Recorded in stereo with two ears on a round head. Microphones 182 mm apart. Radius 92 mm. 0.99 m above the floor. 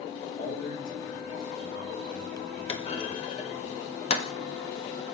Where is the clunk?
30° left (ahead or behind), 1.4 m.